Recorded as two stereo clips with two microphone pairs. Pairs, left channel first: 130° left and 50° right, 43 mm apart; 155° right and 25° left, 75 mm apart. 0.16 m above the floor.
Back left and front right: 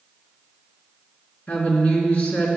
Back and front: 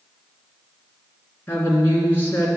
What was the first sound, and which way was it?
A woman speaking, 155° left.